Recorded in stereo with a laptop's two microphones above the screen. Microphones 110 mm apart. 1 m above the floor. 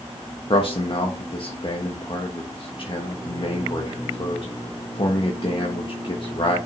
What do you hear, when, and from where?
0.5 s a man speaking: 50° left (ahead or behind), 1.5 m